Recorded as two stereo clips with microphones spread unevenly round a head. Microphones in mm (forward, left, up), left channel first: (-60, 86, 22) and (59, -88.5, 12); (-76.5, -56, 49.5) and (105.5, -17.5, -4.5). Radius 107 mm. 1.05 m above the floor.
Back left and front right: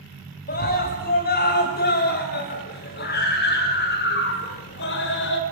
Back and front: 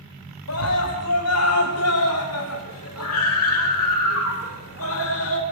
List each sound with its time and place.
0.5 s a scream: 175° left, 8 m; by 5.4 s 160° left, 5.5 m